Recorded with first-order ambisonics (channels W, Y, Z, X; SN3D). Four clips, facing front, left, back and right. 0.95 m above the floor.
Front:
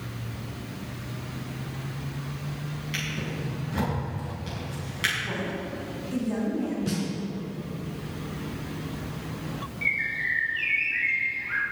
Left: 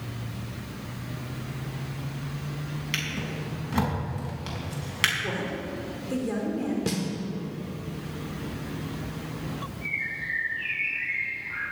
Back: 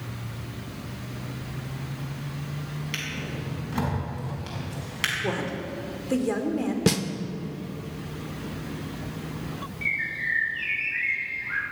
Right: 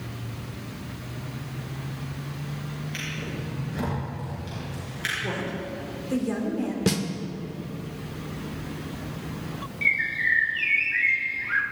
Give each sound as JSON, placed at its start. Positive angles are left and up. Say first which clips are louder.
{"t": 2.9, "sound": "a drawer", "louder": "left 3 dB, front 1 dB", "azimuth_deg": 105, "distance_m": 5.0}
{"t": 5.2, "sound": "a woman speaking", "louder": "even, back 2 dB", "azimuth_deg": 180, "distance_m": 2.5}
{"t": 6.9, "sound": "a snare drum", "louder": "right 4 dB, back 6 dB", "azimuth_deg": -160, "distance_m": 0.9}
{"t": 9.8, "sound": "a bird", "louder": "right 8 dB, front 1 dB", "azimuth_deg": -90, "distance_m": 2.0}